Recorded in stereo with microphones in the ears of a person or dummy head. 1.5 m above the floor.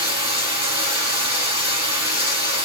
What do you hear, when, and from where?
0.0 s running water: 35° right (ahead or behind), 2.5 m